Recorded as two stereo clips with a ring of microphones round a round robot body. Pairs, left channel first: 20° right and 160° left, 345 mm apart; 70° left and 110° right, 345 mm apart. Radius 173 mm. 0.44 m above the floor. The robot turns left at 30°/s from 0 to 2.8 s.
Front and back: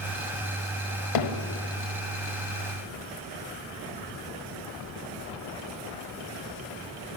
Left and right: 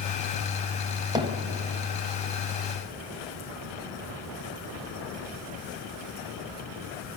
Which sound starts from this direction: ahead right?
Hammering, at 1.1 s.